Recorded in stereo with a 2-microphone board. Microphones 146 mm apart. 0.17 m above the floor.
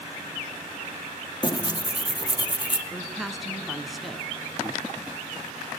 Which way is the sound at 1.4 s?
30° left (ahead or behind).